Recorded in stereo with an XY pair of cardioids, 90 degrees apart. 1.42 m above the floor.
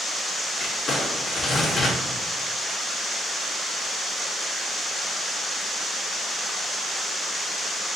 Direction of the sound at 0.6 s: 55° left.